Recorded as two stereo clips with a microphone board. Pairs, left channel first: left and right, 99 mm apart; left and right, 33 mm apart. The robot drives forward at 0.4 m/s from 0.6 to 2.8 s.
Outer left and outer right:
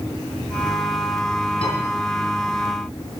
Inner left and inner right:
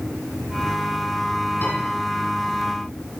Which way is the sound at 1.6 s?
65° left (ahead or behind).